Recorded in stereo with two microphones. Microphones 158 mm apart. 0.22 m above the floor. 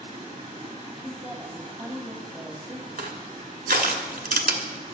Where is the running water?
45° right (ahead or behind), 3 m.